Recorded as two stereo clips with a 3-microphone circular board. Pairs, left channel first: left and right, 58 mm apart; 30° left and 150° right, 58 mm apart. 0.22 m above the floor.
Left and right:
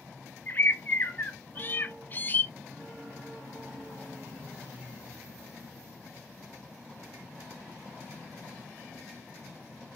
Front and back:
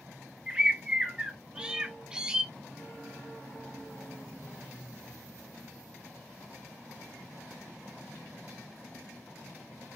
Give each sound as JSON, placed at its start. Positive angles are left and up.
{"t": 0.5, "sound": "a bird", "azimuth_deg": 135, "distance_m": 0.6}